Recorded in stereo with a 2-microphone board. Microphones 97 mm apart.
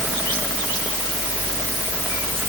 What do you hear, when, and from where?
Only background noise.